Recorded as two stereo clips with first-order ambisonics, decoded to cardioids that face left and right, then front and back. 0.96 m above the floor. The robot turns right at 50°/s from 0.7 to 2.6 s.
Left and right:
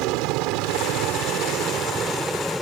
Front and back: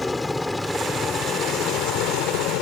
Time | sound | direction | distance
0.0 | a helicopter | 80° right | ?